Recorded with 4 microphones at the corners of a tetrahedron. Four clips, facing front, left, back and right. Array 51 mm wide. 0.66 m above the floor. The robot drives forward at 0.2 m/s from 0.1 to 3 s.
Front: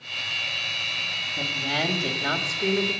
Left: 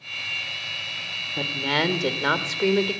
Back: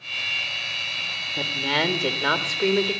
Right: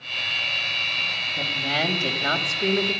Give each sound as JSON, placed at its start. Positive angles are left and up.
{"t": 1.4, "sound": "a woman speaking", "azimuth_deg": 125, "distance_m": 1.5}